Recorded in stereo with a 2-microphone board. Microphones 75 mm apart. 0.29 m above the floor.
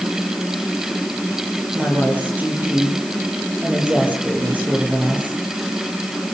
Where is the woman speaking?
20° right (ahead or behind), 8 m.